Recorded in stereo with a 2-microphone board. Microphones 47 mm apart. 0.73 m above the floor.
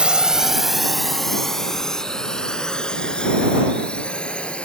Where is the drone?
20° right (ahead or behind); by 4.7 s 20° left (ahead or behind).